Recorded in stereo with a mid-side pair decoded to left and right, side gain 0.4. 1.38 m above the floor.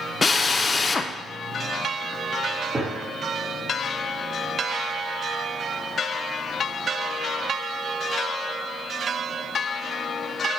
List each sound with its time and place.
0.2 s a drill: 35° left, 0.6 m
2.7 s a gunshot: 30° right, 2 m